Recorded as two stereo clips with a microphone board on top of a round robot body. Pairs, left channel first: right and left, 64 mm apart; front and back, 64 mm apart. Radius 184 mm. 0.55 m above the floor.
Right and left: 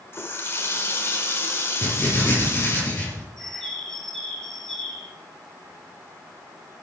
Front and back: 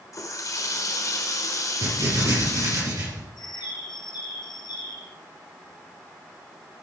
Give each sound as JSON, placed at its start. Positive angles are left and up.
{"t": 0.1, "sound": "a running tap", "azimuth_deg": -35, "distance_m": 1.8}
{"t": 1.8, "sound": "writing", "azimuth_deg": -145, "distance_m": 6.0}
{"t": 3.4, "sound": "a bird", "azimuth_deg": -5, "distance_m": 2.5}